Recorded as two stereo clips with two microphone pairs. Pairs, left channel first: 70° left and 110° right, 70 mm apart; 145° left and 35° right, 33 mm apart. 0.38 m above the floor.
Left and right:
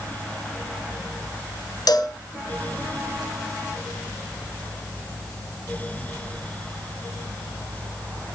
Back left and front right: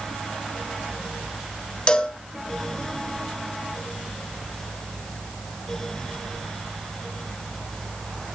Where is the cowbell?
85° left, 2.5 m.